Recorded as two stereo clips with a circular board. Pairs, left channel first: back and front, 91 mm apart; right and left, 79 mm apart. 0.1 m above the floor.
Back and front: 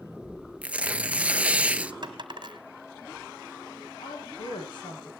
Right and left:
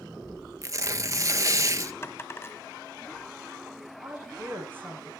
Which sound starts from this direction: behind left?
A woman speaking, at 4.0 s.